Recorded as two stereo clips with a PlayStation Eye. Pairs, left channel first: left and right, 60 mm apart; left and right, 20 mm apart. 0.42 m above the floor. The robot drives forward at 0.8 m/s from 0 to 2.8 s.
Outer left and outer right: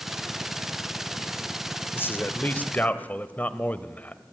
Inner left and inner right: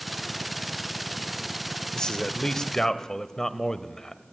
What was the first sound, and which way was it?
A man speaking, 40° left (ahead or behind).